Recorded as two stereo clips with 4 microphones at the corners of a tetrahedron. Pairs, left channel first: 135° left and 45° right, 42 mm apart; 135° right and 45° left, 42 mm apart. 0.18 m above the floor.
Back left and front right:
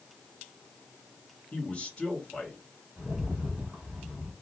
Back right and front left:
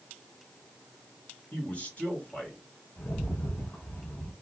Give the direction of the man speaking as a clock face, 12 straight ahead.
5 o'clock.